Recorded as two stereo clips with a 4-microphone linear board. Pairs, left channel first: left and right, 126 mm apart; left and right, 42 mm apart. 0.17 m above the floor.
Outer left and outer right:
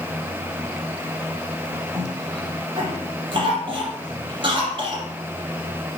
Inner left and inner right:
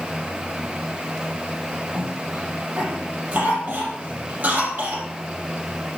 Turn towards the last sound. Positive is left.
turn(degrees=-40)  # may be behind; listen again after turning